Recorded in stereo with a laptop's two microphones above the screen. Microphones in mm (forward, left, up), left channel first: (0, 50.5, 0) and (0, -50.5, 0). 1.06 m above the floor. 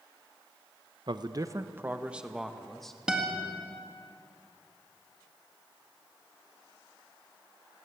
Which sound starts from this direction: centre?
A guitar, at 3.1 s.